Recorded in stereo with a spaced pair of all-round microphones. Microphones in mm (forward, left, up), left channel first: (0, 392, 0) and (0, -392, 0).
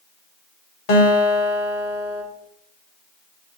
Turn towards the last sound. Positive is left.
turn(degrees=55)  # may be behind; listen again after turning